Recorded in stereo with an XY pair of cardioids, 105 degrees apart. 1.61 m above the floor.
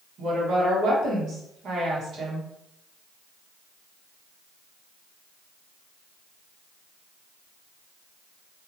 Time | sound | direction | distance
0.2 | a woman speaking | 60° right | 1.5 m